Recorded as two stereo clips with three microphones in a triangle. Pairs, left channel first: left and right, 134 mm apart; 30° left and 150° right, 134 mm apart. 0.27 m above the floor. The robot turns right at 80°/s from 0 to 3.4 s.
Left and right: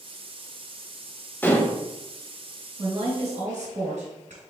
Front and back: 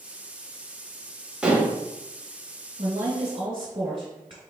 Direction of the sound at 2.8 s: 155° right.